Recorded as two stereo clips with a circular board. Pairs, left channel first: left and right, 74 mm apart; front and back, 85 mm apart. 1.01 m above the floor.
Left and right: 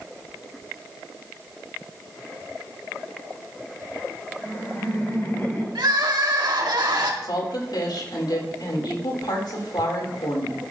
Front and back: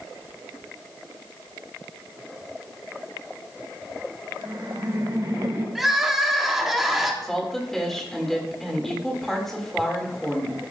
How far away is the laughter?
About 6.5 m.